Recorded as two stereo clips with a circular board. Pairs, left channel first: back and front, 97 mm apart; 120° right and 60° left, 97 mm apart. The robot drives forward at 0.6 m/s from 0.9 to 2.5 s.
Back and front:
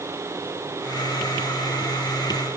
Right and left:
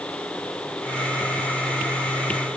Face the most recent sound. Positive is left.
No sound to turn to.